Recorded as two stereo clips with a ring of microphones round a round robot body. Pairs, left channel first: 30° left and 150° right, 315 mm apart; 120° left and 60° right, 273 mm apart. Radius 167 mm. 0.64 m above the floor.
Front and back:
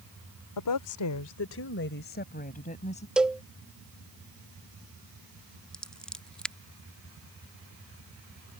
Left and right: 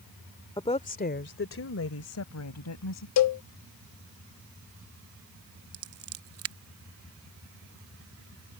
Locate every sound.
0.6 s a woman speaking: 45° left; by 3.1 s 100° left
3.2 s a cowbell: 120° left
5.7 s scissors: 55° right